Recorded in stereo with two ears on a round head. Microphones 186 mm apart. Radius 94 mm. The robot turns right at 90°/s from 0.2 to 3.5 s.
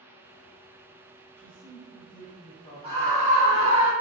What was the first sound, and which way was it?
A man speaking, 45° left.